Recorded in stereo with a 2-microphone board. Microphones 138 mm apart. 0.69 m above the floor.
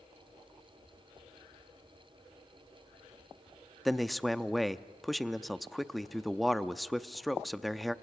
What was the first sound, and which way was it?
A man speaking, centre (ahead or behind).